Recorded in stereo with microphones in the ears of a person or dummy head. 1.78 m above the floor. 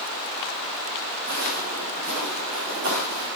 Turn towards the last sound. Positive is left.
turn(degrees=-70)  # may be behind; listen again after turning